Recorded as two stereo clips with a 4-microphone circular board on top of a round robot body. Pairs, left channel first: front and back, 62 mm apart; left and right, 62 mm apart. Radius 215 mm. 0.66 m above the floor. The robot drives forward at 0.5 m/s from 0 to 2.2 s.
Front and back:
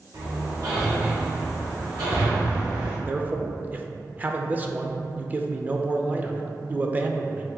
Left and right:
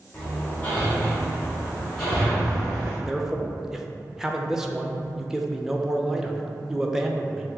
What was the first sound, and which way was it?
Hammering, 155° left.